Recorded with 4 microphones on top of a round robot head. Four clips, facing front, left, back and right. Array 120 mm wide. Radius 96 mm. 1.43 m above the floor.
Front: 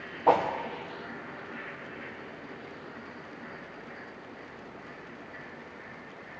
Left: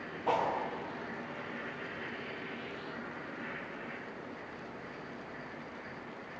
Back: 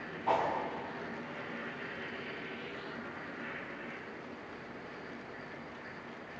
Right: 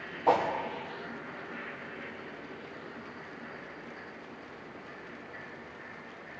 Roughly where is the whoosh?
Ahead.